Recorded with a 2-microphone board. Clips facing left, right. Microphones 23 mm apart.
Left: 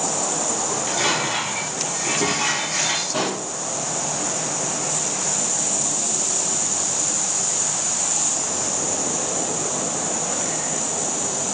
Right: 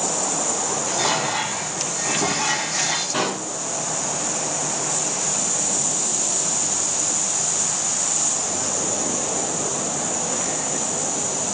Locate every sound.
0.7 s dishes clattering: 35° left (ahead or behind), 1.4 m
3.1 s a pop: 20° right (ahead or behind), 0.6 m